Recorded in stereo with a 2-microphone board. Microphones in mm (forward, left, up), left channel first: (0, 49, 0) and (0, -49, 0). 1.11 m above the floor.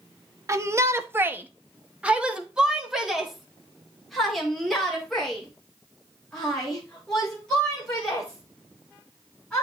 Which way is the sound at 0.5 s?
30° right (ahead or behind).